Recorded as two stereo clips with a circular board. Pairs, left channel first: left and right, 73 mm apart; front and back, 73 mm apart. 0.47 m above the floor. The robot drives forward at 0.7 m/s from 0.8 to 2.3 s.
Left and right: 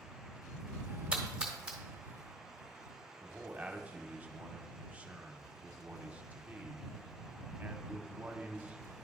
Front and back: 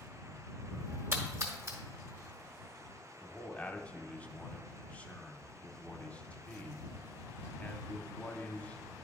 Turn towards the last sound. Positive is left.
turn(degrees=-45)